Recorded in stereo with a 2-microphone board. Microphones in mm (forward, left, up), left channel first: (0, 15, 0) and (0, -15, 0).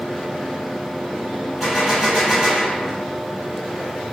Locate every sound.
1.6 s a gunshot: centre (ahead or behind), 1.2 m